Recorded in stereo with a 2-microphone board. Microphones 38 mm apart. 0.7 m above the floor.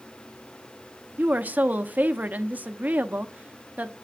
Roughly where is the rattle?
No rattle in this recording.